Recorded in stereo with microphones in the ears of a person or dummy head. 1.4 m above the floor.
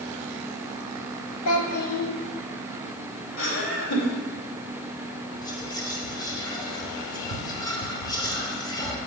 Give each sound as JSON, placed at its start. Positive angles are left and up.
{"t": 1.4, "sound": "a child speaking", "side_deg": 85, "distance_m": 1.5}
{"t": 3.4, "sound": "laughter", "side_deg": 85, "distance_m": 3.0}
{"t": 5.4, "sound": "whispering", "side_deg": 25, "distance_m": 1.3}